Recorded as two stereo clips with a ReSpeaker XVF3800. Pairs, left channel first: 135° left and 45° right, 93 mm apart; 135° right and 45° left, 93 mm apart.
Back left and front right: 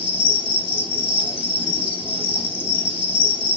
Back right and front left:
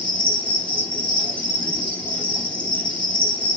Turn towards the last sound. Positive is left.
turn(degrees=150)